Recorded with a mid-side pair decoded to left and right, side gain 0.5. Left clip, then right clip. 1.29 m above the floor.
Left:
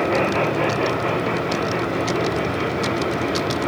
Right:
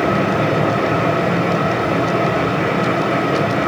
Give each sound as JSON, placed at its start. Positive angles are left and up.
{"t": 0.0, "sound": "a fan", "azimuth_deg": -60, "distance_m": 4.5}